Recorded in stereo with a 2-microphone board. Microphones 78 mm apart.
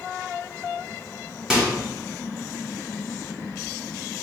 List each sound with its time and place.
1.5 s a microwave: 10° right (ahead or behind), 0.9 m